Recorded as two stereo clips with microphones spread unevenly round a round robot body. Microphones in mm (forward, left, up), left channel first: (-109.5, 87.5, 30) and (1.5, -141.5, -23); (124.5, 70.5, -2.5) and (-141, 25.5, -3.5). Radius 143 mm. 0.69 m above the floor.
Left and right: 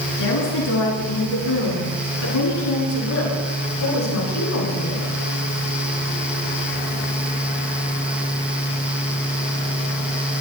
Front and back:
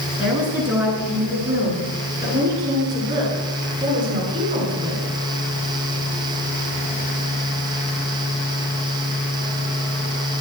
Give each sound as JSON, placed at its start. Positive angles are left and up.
{"t": 0.2, "sound": "a woman speaking", "azimuth_deg": 105, "distance_m": 10.0}